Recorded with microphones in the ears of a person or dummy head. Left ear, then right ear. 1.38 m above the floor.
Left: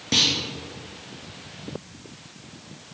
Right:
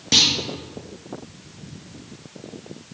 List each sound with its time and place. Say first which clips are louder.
0.1 s a clunk: right 4 dB; 15° right (ahead or behind), 0.6 m